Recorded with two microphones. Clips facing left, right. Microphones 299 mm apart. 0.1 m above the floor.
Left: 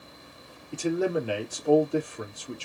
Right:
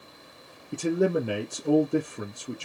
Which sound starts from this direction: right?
A man speaking, at 0.7 s.